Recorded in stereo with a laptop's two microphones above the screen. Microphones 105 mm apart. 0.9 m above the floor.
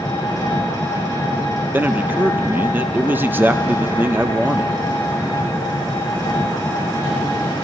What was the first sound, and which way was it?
An engine running, 35° left (ahead or behind).